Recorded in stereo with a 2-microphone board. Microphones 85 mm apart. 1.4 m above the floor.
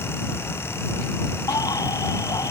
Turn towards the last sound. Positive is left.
turn(degrees=50)  # may be behind; listen again after turning